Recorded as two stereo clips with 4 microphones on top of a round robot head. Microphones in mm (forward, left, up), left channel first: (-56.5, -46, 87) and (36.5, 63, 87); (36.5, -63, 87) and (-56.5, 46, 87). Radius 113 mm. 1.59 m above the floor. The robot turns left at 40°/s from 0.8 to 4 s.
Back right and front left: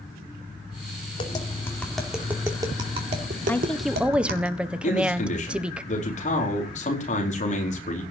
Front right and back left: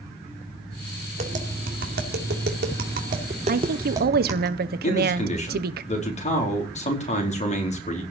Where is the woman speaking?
155° left, 1.2 m; by 5.8 s 130° left, 1.2 m.